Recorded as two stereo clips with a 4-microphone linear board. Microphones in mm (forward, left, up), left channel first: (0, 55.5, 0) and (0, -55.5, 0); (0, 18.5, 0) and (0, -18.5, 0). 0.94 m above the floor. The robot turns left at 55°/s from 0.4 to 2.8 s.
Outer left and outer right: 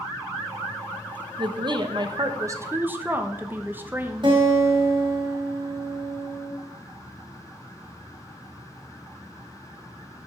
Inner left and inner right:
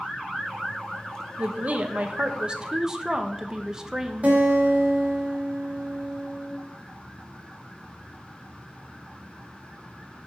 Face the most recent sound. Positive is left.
turn(degrees=-45)  # may be behind; listen again after turning